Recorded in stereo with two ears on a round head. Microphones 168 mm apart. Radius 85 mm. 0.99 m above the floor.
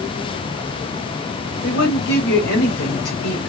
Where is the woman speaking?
65° left (ahead or behind), 1.9 m.